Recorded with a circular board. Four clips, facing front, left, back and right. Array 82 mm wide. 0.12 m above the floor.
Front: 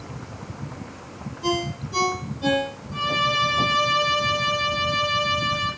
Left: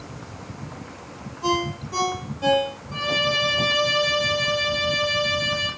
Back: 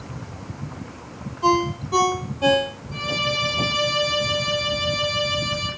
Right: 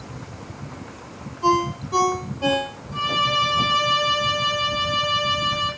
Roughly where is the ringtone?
Behind.